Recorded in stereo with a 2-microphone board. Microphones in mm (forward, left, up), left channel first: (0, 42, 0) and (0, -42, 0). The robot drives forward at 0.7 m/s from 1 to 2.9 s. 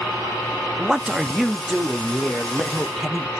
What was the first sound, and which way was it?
A man speaking, 5° right (ahead or behind).